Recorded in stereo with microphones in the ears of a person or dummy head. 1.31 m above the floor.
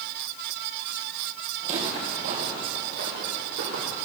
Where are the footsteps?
40° right (ahead or behind), 2.5 m; by 4.0 s 65° right (ahead or behind), 3.5 m.